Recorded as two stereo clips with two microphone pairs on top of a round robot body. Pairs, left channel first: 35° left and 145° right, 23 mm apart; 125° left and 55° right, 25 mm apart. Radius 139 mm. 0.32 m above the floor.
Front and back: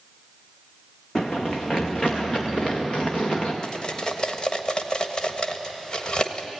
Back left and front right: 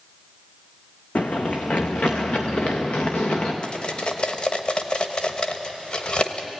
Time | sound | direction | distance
1.1 | running footsteps | 100° left | 1.5 m
3.6 | cutlery clinking | 85° left | 1.5 m